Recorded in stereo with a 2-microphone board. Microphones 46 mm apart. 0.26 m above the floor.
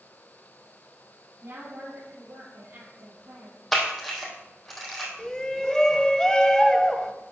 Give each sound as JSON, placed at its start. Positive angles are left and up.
{"t": 1.4, "sound": "a woman speaking", "side_deg": -60, "distance_m": 5.5}
{"t": 3.7, "sound": "a camera shutter", "side_deg": 0, "distance_m": 3.0}
{"t": 5.2, "sound": "a shout", "side_deg": 10, "distance_m": 1.0}